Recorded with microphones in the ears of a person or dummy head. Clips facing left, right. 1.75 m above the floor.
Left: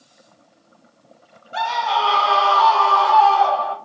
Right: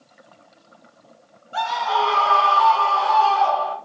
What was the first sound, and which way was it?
A scream, 20° left (ahead or behind).